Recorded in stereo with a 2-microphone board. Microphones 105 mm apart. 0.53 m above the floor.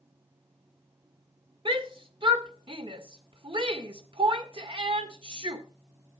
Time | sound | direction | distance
1.6 | a shout | 55° right (ahead or behind) | 1.7 m